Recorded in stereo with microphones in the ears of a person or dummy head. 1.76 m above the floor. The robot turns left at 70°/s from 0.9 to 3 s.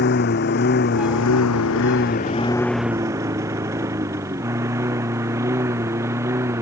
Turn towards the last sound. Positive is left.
turn(degrees=-10)  # may be behind; listen again after turning